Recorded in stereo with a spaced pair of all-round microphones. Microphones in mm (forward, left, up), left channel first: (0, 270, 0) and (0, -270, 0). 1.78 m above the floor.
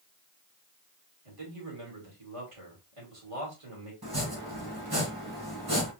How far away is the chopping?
About 2 m.